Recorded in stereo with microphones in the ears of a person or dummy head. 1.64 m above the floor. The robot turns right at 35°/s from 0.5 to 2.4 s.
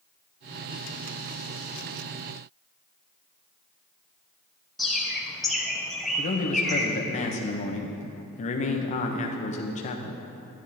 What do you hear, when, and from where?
4.8 s a bird: 5° right (ahead or behind), 1.1 m
6.2 s a man speaking: 30° left (ahead or behind), 1.1 m